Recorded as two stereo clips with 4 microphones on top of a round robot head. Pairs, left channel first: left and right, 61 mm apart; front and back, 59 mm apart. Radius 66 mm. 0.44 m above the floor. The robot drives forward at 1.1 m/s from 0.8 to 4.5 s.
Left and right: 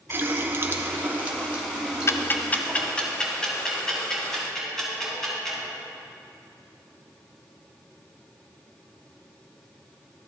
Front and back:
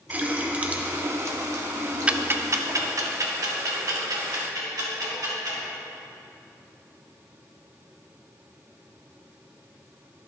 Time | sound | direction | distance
0.1 | a running tap | 130° right | 0.9 m
2.1 | ticking | 115° left | 0.6 m